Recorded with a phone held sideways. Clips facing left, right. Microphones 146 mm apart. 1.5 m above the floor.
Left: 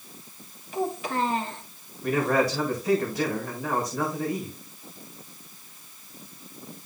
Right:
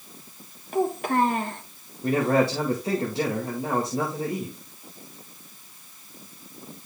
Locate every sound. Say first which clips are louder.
0.7 s a child speaking: right 5 dB; 55° right (ahead or behind), 1.1 m
2.0 s a man speaking: right 2 dB; 25° right (ahead or behind), 2.0 m